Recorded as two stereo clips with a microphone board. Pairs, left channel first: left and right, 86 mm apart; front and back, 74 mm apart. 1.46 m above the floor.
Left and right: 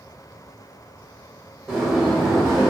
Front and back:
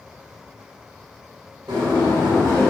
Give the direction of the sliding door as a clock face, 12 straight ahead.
6 o'clock.